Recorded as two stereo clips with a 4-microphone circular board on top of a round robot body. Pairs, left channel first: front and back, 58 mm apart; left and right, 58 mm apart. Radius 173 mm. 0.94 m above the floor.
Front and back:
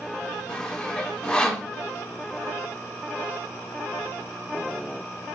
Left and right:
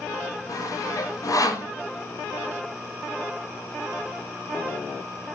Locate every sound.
0.5 s sawing: 75° left, 3 m